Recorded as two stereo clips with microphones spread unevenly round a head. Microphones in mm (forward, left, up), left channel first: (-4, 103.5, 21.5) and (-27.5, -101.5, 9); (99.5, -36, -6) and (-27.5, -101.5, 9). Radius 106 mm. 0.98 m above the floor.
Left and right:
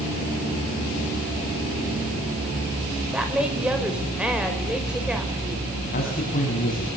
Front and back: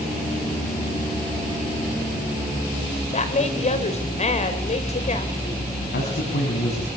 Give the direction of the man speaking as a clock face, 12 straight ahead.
11 o'clock.